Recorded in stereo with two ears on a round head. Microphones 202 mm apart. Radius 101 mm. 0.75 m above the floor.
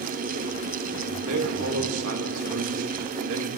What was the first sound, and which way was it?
A man speaking, 70° right (ahead or behind).